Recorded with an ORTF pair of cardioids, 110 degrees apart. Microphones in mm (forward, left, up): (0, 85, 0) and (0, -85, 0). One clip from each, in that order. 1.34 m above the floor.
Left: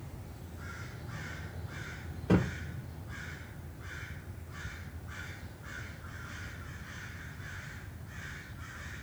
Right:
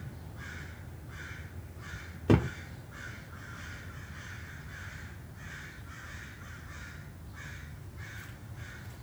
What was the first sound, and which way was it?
A thud, 55° right.